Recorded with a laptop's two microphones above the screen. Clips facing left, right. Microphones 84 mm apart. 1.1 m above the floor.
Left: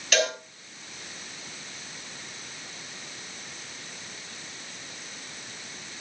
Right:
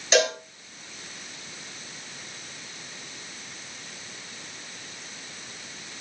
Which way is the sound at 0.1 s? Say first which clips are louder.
Right 4 dB; 25° right (ahead or behind).